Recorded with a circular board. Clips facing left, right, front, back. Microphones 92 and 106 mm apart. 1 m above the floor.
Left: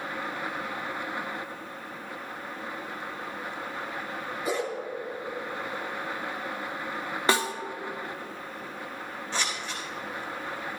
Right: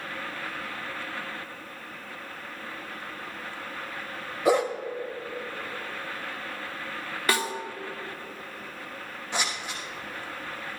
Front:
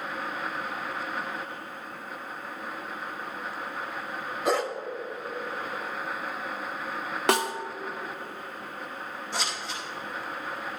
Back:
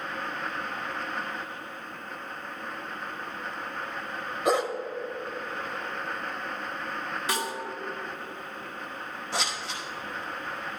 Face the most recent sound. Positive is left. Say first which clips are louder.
# right 1 dB, back 2 dB
turn(degrees=-165)